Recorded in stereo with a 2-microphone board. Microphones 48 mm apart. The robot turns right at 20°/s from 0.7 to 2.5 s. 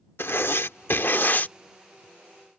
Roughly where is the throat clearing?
No throat clearing in this recording.